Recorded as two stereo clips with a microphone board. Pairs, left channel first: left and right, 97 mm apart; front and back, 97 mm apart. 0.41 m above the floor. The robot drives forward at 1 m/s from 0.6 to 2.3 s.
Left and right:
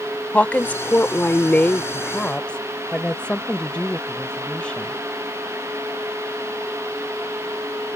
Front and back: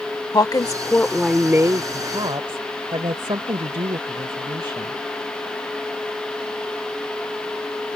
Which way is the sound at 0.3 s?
20° left.